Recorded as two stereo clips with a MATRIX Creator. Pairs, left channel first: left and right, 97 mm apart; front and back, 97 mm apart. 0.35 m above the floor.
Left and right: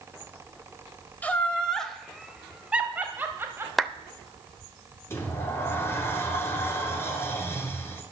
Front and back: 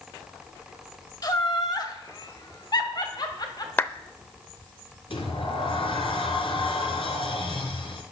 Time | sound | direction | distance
1.2 | laughter | 25° left | 1.8 m
3.8 | a clap | straight ahead | 0.7 m
5.1 | a sliding door | 25° left | 2.5 m